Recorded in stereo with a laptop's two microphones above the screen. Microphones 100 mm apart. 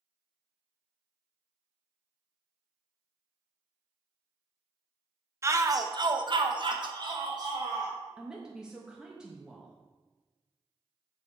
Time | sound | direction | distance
5.4 | a shout | 25° right (ahead or behind) | 0.9 m
8.2 | a woman speaking | 5° right (ahead or behind) | 0.7 m